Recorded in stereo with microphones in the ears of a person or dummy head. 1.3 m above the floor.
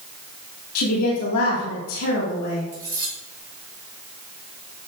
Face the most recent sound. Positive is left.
turn(degrees=-20)  # may be behind; listen again after turning